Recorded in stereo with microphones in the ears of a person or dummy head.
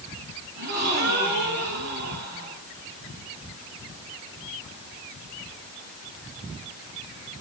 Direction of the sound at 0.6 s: 50° right (ahead or behind).